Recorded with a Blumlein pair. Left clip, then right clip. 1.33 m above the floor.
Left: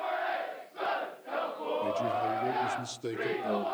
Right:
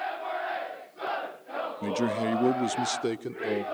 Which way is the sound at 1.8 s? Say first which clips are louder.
Right 1 dB; 65° right.